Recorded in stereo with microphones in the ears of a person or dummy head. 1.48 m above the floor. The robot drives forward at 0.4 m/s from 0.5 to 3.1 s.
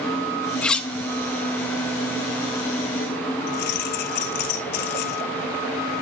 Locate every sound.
0.6 s cutlery clinking: 5° left (ahead or behind), 1.0 m; by 0.9 s 10° left (ahead or behind), 0.9 m
3.5 s keys jangling: 45° left (ahead or behind), 1.4 m